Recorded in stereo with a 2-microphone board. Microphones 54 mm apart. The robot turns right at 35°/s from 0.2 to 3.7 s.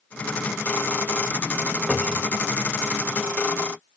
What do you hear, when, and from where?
1.9 s a cupboard door: 5° right (ahead or behind), 0.9 m; by 2.4 s 15° right (ahead or behind), 0.9 m